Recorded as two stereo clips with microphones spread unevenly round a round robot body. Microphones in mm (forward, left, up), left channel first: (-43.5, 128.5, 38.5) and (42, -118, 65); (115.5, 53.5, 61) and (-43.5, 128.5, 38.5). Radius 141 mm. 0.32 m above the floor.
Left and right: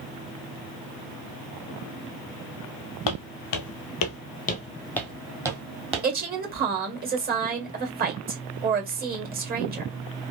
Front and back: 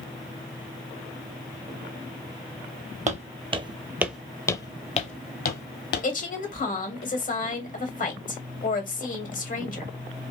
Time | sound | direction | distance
3.1 | footsteps | 105° left | 0.9 m
6.0 | a woman speaking | 30° right | 1.8 m